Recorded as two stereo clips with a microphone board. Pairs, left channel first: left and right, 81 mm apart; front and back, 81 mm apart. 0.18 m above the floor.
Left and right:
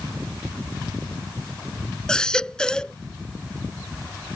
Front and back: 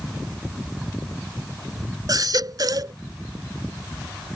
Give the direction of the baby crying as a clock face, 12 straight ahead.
6 o'clock.